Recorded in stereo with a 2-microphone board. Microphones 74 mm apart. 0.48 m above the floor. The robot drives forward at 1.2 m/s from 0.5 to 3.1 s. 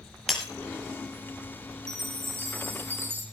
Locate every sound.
0.3 s breaking glass: 5° right (ahead or behind), 5.5 m
1.9 s a chime: 40° right (ahead or behind), 3 m; by 3.2 s 30° right (ahead or behind), 4.5 m